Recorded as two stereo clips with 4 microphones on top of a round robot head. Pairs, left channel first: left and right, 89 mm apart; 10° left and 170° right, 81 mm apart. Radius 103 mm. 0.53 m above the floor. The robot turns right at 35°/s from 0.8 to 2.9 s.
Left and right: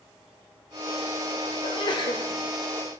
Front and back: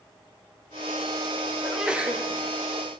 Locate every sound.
1.6 s a sneeze: 100° left, 1.8 m; by 2.2 s 125° left, 1.8 m